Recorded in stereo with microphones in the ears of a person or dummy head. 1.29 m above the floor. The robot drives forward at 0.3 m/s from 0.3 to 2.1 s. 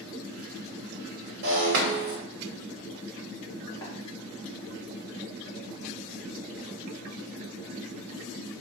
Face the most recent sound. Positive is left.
turn(degrees=15)  # may be behind; listen again after turning